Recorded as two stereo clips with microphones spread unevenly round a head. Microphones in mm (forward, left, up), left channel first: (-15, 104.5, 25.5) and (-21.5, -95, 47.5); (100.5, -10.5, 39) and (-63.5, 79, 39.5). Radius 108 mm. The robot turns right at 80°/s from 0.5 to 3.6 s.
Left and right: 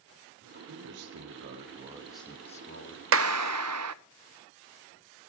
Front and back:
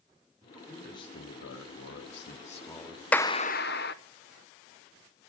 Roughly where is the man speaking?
Behind right.